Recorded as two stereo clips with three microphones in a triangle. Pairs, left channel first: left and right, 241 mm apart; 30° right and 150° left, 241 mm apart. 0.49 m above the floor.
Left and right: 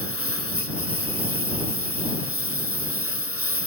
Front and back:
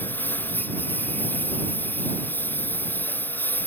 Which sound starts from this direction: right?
A lawn mower, at 0.0 s.